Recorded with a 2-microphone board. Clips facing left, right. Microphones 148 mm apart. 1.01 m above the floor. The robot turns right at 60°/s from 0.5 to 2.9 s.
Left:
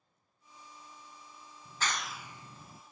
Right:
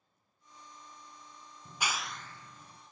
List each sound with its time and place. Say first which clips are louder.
1.6 s a clap: even; 20° right (ahead or behind), 0.5 m; by 2.8 s 40° left (ahead or behind), 0.5 m